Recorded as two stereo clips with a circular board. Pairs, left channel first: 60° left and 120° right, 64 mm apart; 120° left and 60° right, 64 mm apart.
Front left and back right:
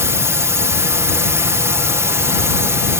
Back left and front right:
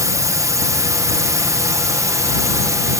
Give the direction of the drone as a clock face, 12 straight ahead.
3 o'clock.